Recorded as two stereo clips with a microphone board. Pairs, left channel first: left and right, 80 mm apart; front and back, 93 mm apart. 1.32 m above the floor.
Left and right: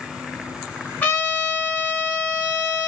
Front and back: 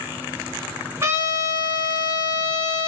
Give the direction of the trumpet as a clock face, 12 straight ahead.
7 o'clock.